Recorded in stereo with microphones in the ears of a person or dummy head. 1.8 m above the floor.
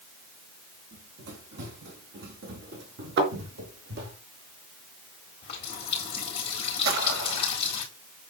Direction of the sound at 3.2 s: 65° right (ahead or behind).